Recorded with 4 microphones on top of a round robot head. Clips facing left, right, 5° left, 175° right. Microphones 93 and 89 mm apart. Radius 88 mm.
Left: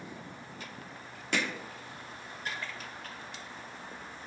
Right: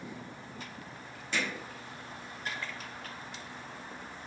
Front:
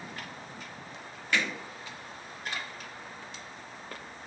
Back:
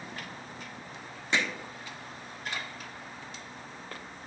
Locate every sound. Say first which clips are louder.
1.3 s hammering: left 2 dB, even; 120° left, 1.1 m